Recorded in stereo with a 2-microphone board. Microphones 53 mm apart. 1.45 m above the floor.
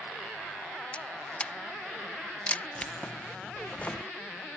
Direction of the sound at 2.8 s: 25° left (ahead or behind).